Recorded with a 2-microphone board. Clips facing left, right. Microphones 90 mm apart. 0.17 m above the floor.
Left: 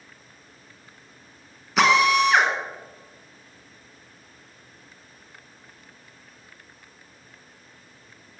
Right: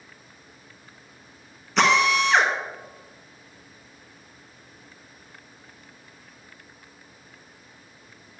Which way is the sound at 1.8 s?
5° left (ahead or behind).